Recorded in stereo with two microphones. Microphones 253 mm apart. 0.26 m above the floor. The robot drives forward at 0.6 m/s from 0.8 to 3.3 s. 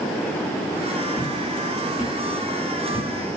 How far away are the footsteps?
About 6.5 m.